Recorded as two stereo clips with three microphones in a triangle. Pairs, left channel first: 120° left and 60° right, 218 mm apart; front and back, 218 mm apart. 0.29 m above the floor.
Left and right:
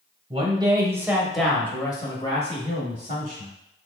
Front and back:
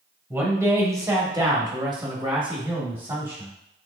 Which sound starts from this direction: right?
A man speaking, at 0.3 s.